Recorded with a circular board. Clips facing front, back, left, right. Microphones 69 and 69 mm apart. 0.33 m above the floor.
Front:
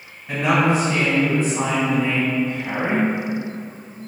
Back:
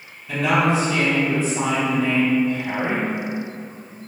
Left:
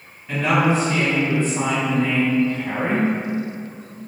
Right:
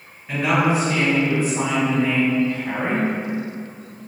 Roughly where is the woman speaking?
Ahead.